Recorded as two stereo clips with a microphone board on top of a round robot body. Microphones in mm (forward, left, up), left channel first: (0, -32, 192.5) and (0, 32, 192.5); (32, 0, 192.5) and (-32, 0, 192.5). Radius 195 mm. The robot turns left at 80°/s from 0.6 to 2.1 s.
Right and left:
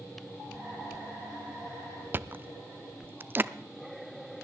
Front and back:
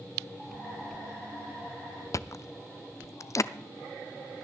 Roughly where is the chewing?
Ahead left.